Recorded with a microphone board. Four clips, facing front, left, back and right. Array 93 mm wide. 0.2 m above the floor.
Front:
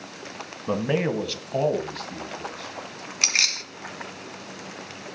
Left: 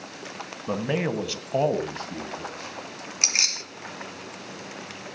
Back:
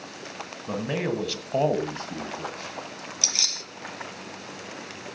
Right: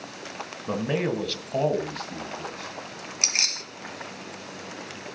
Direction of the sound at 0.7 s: 5° left.